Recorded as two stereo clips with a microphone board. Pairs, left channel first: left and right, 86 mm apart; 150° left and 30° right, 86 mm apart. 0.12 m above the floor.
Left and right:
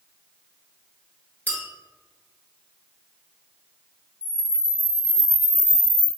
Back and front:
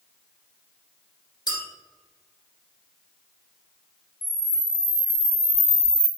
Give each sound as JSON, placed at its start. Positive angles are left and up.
{"t": 1.5, "sound": "a clink", "azimuth_deg": 160, "distance_m": 1.2}
{"t": 4.2, "sound": "a camera shutter", "azimuth_deg": 105, "distance_m": 2.0}